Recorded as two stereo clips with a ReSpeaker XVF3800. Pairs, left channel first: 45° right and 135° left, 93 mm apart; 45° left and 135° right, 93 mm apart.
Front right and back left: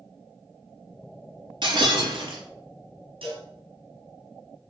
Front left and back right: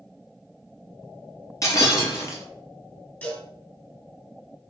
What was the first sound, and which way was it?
Breaking glass, 100° left.